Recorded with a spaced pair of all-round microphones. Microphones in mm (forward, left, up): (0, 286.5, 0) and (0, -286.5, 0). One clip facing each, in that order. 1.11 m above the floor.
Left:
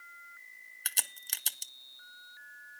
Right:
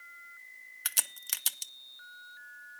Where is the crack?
35° right (ahead or behind), 0.6 m.